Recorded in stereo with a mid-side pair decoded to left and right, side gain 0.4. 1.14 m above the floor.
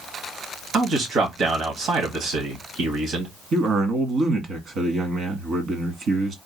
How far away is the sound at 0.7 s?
About 2 m.